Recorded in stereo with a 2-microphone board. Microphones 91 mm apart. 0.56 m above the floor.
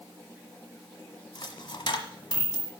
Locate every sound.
1.4 s a dropped coin: 60° left (ahead or behind), 1.2 m